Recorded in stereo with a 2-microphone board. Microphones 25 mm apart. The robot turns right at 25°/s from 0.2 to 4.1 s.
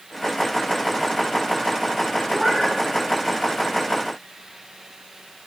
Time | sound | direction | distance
2.3 | a cat meowing | 15° right (ahead or behind) | 3 m